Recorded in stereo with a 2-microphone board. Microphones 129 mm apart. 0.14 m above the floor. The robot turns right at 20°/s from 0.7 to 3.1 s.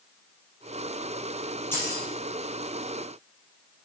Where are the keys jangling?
15° left (ahead or behind), 3 m; by 2.0 s 25° left (ahead or behind), 3 m.